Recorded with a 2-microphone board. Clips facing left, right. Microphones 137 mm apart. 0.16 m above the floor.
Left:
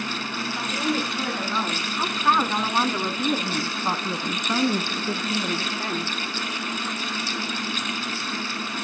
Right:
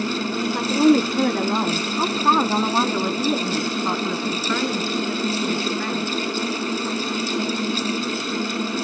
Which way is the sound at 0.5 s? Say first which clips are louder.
Right 11 dB; 55° right (ahead or behind).